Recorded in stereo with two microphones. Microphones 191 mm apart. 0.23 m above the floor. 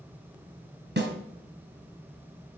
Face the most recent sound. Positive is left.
turn(degrees=-60)  # may be behind; listen again after turning